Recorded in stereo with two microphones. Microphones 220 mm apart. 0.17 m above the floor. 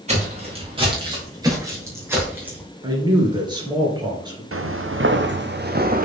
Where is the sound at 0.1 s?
30° right (ahead or behind), 4 m; by 2.6 s 5° right (ahead or behind), 4.5 m.